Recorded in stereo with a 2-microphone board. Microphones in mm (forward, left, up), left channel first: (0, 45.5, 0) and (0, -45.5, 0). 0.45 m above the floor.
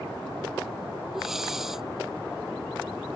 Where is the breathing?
5° right (ahead or behind).